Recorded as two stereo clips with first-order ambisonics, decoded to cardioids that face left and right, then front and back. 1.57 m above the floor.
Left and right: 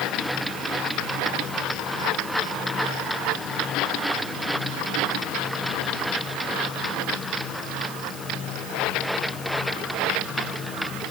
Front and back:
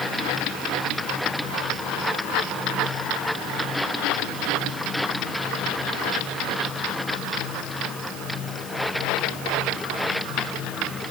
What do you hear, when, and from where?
Only background noise.